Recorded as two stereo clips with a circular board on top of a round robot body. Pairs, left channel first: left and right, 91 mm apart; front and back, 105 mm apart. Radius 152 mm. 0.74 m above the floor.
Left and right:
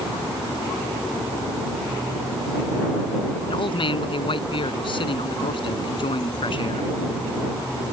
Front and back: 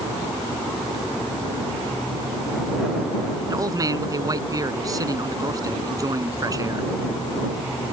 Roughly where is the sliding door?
No sliding door in this recording.